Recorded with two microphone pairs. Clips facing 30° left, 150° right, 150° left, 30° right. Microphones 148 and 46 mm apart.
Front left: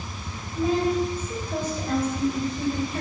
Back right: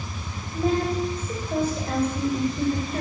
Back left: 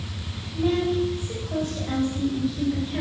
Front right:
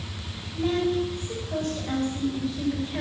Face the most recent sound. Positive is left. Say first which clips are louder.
# front left 1 dB, back left 2 dB
turn(degrees=-125)